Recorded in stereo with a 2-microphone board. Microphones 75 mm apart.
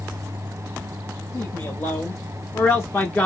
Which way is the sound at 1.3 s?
50° left (ahead or behind).